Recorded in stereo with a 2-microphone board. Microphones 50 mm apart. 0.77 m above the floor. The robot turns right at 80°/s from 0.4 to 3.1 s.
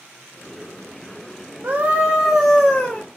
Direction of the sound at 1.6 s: 75° right.